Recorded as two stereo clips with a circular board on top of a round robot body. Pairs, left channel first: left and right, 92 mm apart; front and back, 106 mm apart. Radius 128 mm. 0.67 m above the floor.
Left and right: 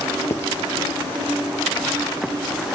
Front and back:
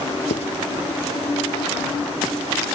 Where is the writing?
25° left.